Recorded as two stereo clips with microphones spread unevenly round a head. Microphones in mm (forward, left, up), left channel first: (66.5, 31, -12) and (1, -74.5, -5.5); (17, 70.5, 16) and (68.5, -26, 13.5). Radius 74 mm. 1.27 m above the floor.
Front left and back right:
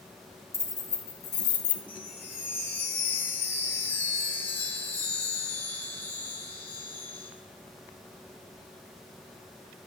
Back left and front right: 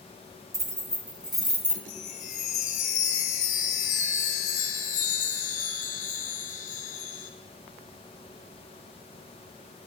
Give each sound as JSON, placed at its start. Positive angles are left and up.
{"t": 0.5, "sound": "keys jangling", "azimuth_deg": -10, "distance_m": 2.0}
{"t": 1.9, "sound": "a chime", "azimuth_deg": 135, "distance_m": 0.8}